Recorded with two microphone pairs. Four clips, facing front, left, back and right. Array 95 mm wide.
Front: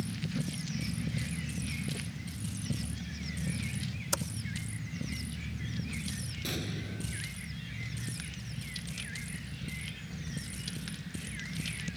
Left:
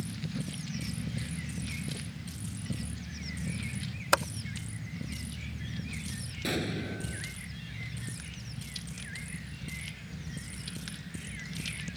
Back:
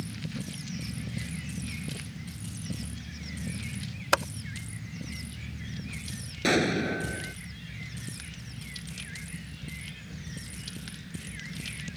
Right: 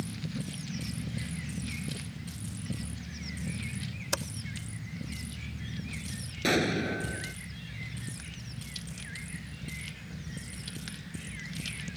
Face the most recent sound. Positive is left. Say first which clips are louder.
# right 6 dB, back 15 dB
turn(degrees=-150)